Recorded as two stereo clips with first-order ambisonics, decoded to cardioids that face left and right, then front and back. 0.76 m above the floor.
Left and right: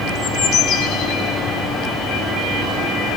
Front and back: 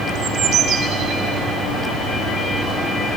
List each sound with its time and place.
0.1 s a bird: 140° left, 1.4 m